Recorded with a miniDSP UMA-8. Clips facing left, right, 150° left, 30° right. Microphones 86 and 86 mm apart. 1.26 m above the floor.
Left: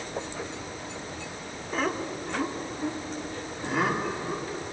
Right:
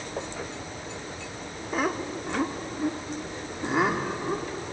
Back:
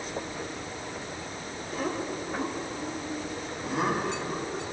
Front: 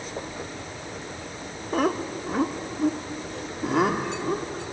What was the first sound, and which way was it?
Laughter, 10° right.